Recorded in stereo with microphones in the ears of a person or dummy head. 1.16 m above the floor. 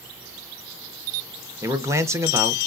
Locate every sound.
1.6 s a man speaking: 15° right (ahead or behind), 0.7 m